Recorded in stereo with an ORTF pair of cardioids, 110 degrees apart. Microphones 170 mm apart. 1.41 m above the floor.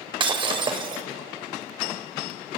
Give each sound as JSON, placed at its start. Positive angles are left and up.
{"t": 0.2, "sound": "breaking glass", "azimuth_deg": -30, "distance_m": 2.5}